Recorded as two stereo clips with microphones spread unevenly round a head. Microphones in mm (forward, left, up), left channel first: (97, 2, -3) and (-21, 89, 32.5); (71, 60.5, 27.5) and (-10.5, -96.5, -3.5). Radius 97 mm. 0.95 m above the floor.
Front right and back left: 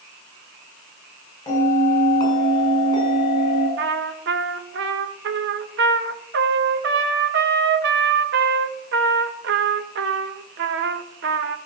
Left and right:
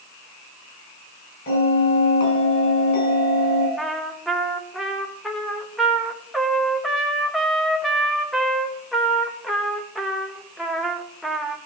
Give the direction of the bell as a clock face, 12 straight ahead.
11 o'clock.